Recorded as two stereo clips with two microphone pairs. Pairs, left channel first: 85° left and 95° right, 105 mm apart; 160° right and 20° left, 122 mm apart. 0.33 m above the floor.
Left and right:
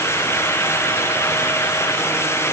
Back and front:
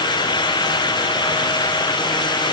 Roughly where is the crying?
No crying in this recording.